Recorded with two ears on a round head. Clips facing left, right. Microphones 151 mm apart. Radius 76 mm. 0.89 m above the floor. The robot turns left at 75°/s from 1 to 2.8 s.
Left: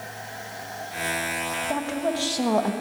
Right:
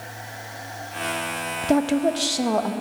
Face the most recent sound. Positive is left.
turn(degrees=160)